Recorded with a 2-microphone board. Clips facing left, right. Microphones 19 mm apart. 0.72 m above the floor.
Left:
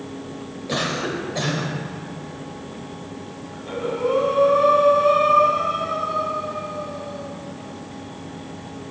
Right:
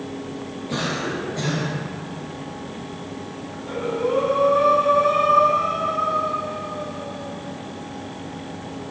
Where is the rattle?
I don't hear a rattle.